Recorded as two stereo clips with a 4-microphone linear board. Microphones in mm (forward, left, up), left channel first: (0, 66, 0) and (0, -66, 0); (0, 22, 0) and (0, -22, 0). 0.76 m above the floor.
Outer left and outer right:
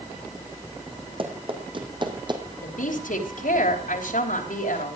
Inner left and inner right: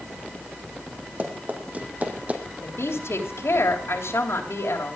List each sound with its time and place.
1.2 s running footsteps: 40° right (ahead or behind), 2.5 m; by 2.4 s 35° right (ahead or behind), 2 m
2.6 s a woman speaking: 80° left, 3.5 m